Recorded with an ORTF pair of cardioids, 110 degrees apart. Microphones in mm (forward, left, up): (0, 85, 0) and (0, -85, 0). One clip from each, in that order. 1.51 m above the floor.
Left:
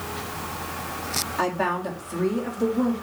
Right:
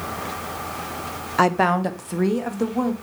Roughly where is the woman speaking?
Ahead right.